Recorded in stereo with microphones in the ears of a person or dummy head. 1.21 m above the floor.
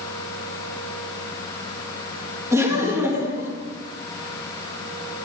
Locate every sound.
2.5 s laughter: 20° right (ahead or behind), 2 m